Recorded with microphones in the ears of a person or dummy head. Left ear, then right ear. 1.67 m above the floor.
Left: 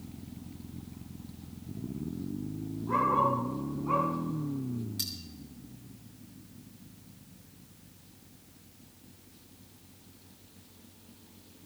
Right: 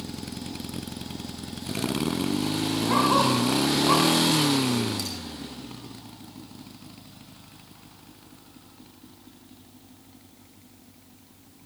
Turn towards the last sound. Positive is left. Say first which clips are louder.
# right 3 dB
turn(degrees=15)  # may be behind; listen again after turning